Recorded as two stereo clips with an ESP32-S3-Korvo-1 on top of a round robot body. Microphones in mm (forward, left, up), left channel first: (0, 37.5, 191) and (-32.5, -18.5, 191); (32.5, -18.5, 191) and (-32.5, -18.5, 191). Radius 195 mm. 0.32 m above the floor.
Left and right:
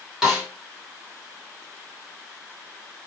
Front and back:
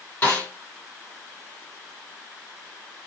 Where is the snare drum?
45° right, 1.8 m.